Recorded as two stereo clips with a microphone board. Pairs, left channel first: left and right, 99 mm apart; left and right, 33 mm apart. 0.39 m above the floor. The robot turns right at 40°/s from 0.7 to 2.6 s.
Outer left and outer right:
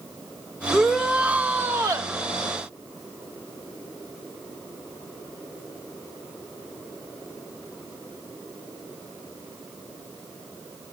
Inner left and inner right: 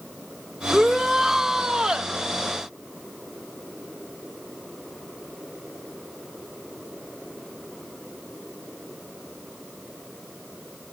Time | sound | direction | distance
0.7 | a shout | 175° left | 1.2 m